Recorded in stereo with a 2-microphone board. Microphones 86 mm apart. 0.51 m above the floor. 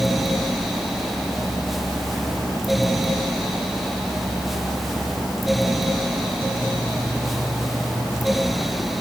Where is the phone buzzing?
No phone buzzing in this recording.